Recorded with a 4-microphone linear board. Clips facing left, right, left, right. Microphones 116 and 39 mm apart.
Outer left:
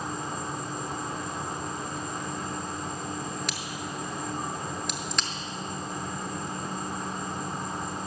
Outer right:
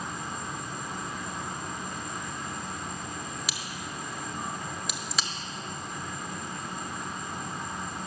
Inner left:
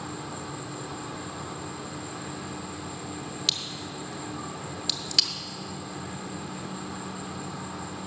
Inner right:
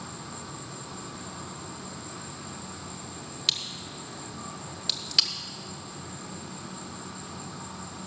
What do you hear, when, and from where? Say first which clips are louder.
0.0 s an insect: outer left 3 dB, inner left 4 dB; 35° left (ahead or behind), 0.9 m
3.5 s a crack: outer left 3 dB, inner right 1 dB; 5° right (ahead or behind), 1.0 m